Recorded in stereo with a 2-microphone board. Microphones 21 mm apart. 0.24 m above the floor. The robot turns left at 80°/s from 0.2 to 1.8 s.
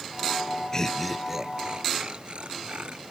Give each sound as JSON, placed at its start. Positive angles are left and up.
{"t": 0.7, "sound": "laughter", "azimuth_deg": 30}